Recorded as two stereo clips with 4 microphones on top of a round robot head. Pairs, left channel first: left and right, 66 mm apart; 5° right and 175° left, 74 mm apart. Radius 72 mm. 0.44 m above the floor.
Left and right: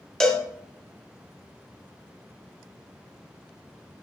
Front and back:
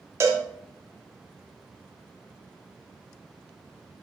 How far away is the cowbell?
About 0.9 m.